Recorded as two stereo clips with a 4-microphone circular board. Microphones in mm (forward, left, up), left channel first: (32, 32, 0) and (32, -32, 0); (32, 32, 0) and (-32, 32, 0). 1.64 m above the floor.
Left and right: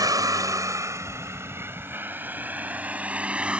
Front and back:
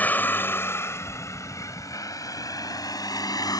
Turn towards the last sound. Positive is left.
turn(degrees=-15)